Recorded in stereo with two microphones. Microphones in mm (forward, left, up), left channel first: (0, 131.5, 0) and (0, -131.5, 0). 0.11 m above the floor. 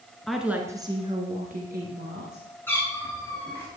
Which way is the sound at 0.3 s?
Centre (ahead or behind).